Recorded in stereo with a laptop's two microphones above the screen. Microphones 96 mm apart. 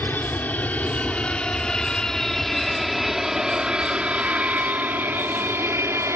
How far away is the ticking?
No ticking in this recording.